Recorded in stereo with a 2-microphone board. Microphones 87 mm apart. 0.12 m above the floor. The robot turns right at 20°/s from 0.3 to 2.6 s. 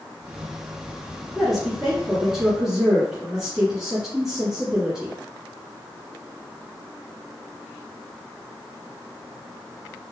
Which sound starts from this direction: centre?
A woman speaking, at 1.4 s.